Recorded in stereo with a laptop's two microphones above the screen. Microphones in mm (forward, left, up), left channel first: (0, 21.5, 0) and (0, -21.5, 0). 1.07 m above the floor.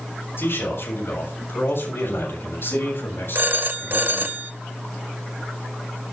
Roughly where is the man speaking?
Left.